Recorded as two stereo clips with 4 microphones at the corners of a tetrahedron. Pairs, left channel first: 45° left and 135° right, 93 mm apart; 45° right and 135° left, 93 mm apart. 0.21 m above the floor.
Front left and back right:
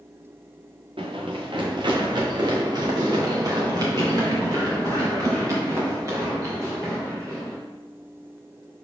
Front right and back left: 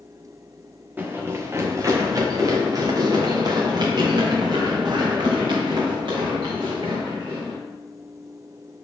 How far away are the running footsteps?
About 1.4 m.